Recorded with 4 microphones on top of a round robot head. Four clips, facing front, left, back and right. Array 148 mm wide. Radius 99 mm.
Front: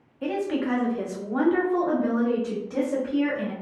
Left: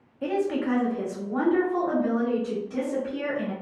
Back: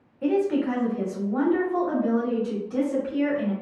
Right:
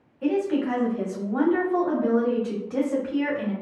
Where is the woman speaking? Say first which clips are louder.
Right 2 dB, back 4 dB; 50° left, 1.2 m; by 3.5 s 80° right, 1.7 m.